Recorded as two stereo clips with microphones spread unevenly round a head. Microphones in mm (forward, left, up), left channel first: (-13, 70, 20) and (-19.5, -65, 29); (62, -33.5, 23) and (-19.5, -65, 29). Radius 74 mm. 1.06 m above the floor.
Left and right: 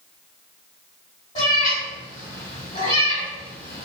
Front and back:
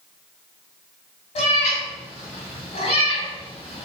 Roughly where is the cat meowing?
Ahead left.